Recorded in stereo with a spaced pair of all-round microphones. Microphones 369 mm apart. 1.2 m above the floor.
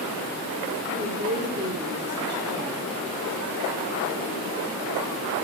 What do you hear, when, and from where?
0.9 s a woman speaking: 30° right (ahead or behind), 3.5 m; by 2.9 s 25° right (ahead or behind), 2.5 m